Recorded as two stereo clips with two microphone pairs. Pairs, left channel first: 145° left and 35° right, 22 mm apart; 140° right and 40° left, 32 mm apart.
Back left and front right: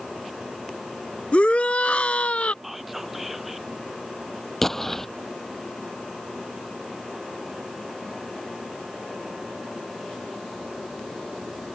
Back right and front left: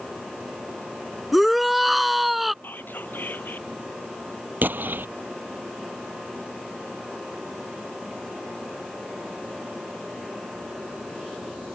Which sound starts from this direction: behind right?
Whispering, at 2.6 s.